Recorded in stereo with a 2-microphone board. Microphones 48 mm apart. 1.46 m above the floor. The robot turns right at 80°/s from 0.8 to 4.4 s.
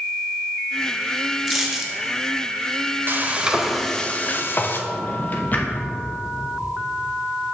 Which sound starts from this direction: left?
A drawer, at 4.9 s.